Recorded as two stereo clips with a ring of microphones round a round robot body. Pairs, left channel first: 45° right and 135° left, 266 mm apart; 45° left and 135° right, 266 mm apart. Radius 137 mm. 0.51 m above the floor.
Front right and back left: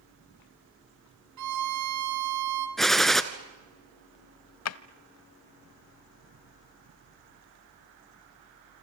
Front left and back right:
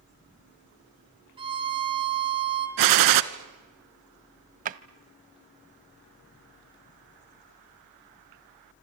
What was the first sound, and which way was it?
A violin, 155° left.